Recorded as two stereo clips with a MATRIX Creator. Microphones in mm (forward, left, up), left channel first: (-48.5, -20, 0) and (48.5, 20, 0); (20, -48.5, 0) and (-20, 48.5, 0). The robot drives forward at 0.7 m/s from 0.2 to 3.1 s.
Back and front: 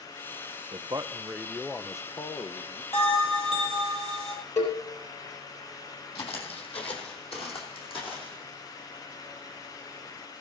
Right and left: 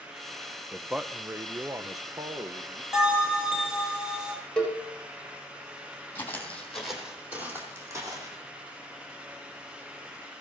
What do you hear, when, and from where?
0.7 s a man speaking: 25° left, 0.7 m; by 2.8 s 165° left, 1.2 m
2.9 s a bell: 165° right, 4 m
4.6 s a cowbell: 155° right, 4.5 m
6.2 s footsteps: 135° right, 3 m; by 8.4 s 165° left, 4 m